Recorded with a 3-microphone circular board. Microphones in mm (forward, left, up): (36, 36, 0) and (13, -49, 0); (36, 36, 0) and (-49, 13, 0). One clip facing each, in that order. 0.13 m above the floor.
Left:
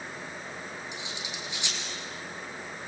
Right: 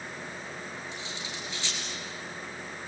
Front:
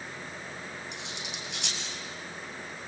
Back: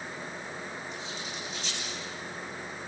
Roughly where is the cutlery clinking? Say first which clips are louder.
Even, back 2 dB; ahead.